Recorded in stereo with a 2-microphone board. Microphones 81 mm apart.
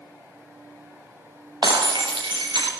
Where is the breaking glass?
65° right (ahead or behind), 4.5 m.